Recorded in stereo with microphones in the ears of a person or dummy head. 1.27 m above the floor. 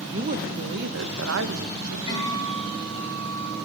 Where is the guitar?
40° left (ahead or behind), 8.5 m.